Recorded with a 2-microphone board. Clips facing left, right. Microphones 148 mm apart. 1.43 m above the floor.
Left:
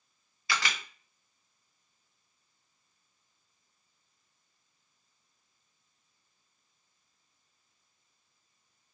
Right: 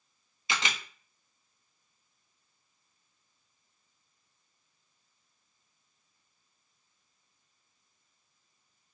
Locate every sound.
0.5 s a camera shutter: 20° right (ahead or behind), 0.7 m